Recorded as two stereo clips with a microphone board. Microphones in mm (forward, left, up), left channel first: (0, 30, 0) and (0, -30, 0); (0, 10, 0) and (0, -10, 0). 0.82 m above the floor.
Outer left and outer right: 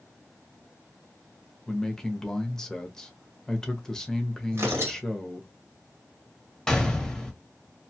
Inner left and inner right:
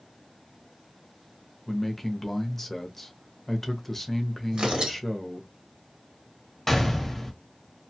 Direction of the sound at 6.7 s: 10° left (ahead or behind).